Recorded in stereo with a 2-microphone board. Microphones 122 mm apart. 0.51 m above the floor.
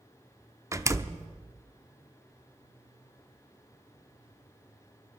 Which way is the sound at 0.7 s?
25° right (ahead or behind).